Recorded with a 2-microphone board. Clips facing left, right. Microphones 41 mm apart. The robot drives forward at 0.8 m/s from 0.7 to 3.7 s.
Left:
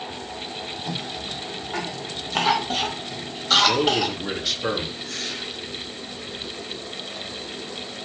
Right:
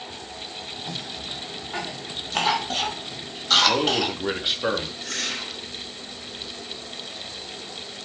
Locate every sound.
0.9 s a cough: 10° left (ahead or behind), 1.1 m; by 4.1 s 5° left (ahead or behind), 3.5 m
3.6 s a man speaking: 20° right (ahead or behind), 3 m
5.0 s a whoosh: 70° right (ahead or behind), 3 m